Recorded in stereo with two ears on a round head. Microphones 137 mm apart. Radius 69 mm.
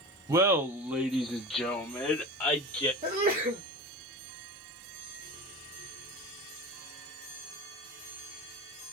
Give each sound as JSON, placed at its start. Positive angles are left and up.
{"t": 0.3, "sound": "laughter", "side_deg": -20, "distance_m": 0.6}
{"t": 3.0, "sound": "a sneeze", "side_deg": -45, "distance_m": 1.1}